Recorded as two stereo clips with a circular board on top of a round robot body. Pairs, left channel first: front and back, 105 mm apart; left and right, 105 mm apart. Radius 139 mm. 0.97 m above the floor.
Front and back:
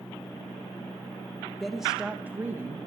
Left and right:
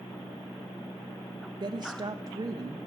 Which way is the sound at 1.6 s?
85° right.